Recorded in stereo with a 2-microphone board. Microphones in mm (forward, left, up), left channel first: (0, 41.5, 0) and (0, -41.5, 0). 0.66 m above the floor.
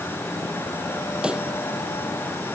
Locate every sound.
1.2 s a pop: 10° right (ahead or behind)